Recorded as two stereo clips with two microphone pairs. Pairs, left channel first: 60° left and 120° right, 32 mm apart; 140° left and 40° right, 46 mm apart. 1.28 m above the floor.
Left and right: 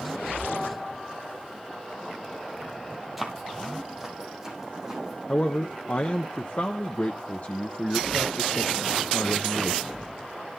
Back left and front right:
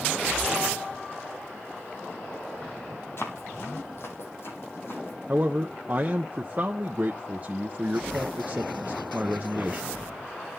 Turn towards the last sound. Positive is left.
turn(degrees=10)